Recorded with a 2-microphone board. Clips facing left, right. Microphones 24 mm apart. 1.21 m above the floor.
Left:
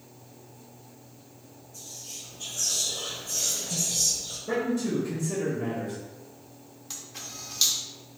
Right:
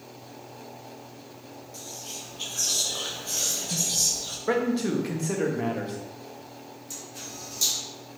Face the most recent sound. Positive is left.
turn(degrees=50)  # may be behind; listen again after turning